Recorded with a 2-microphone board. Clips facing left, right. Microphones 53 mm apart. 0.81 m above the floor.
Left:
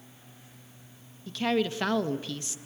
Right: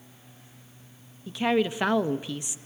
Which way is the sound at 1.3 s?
15° right (ahead or behind).